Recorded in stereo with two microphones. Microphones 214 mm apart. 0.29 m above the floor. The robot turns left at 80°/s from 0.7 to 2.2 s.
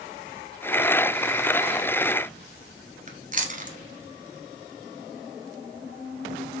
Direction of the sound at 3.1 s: 35° right (ahead or behind).